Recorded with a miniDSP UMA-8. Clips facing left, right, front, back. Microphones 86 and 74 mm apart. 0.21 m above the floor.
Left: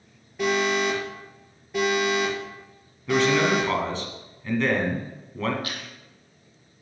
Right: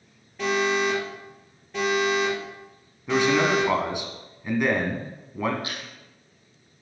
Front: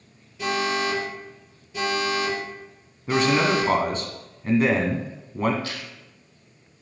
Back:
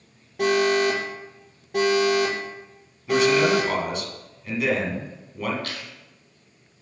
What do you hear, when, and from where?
0.4 s an alarm: 170° left, 6 m
3.1 s a man speaking: 20° right, 1.9 m
5.6 s chewing: 155° right, 2.5 m